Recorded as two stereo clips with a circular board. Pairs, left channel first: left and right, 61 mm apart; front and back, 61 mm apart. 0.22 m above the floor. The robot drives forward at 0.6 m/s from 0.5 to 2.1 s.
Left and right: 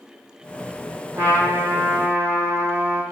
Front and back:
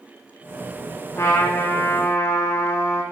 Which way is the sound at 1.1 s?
35° right.